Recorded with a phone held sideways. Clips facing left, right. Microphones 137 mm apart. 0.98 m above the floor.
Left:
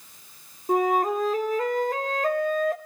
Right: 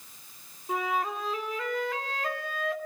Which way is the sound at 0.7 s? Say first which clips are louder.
Left 8 dB; 45° left (ahead or behind).